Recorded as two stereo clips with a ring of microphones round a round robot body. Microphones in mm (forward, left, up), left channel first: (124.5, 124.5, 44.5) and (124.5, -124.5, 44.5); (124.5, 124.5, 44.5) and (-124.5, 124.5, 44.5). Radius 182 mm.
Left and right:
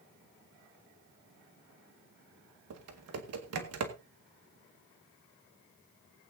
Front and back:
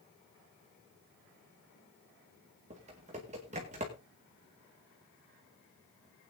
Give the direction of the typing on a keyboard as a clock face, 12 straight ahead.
4 o'clock.